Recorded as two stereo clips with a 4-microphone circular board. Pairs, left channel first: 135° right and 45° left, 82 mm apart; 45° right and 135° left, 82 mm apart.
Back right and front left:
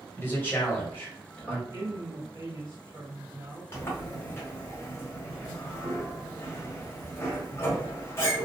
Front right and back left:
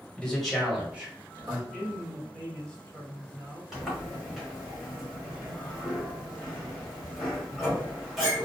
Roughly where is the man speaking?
Right.